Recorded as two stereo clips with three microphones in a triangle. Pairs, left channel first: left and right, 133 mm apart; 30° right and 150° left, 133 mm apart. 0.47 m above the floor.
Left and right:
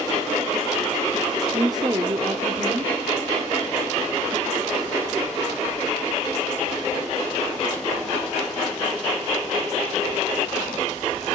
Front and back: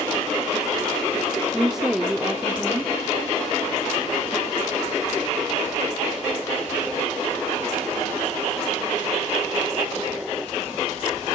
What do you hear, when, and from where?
1.5 s a woman speaking: 125° right, 0.9 m